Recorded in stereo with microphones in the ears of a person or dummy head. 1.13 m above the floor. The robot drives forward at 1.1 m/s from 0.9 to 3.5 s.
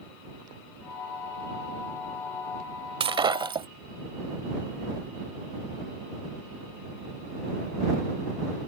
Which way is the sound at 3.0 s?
30° right (ahead or behind).